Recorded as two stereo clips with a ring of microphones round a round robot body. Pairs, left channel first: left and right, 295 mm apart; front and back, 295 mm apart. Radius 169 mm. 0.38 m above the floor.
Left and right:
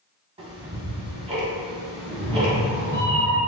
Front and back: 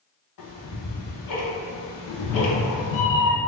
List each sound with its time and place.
0.4 s ticking: 20° right, 0.9 m
2.1 s a cat meowing: 35° right, 0.6 m